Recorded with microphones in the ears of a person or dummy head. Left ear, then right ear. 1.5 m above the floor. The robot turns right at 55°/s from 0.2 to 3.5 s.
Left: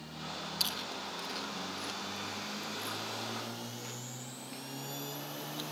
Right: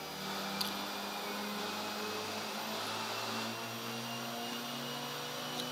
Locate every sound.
0.6 s chewing: 20° left (ahead or behind); by 5.6 s centre (ahead or behind)